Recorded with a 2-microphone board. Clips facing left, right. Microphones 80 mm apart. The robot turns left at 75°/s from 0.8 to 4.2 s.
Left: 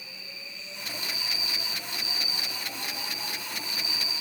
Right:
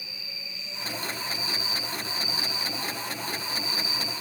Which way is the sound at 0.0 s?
95° right.